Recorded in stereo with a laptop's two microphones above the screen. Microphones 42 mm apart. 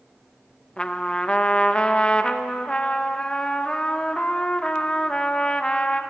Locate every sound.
0.8 s a trumpet: 25° left (ahead or behind), 0.5 m